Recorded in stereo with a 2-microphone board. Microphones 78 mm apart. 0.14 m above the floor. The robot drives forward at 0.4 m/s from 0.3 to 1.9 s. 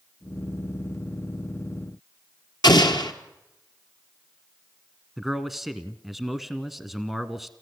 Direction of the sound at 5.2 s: Centre (ahead or behind).